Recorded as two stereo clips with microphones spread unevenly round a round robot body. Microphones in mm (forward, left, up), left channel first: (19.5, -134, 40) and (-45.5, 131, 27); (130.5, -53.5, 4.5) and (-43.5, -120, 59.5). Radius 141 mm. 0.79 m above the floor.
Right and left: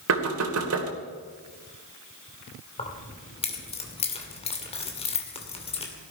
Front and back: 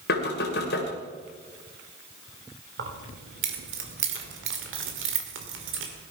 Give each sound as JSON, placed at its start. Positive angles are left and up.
{"t": 0.1, "sound": "knocking", "azimuth_deg": 65, "distance_m": 2.0}
{"t": 2.8, "sound": "keys jangling", "azimuth_deg": -145, "distance_m": 2.5}